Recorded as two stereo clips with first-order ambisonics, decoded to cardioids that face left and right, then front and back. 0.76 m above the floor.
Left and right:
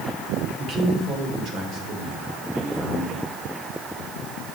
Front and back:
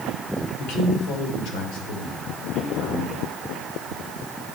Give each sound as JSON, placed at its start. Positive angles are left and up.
{"t": 0.6, "sound": "a man speaking", "azimuth_deg": -35, "distance_m": 3.0}